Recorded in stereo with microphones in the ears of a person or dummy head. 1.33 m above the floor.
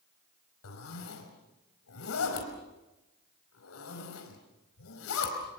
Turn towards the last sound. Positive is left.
turn(degrees=85)